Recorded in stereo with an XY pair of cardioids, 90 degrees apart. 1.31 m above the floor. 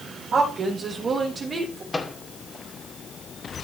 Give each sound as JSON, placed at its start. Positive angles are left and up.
{"t": 0.3, "sound": "a woman speaking", "azimuth_deg": -60, "distance_m": 4.5}
{"t": 1.9, "sound": "a microwave", "azimuth_deg": 25, "distance_m": 2.5}